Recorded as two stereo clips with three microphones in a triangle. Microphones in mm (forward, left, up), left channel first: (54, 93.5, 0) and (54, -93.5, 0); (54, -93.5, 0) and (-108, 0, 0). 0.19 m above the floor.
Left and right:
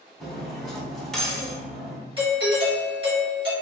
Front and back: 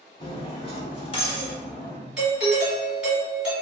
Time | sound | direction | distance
0.2 | cutlery clinking | 5° left | 0.7 m
2.2 | a doorbell | 125° right | 1.7 m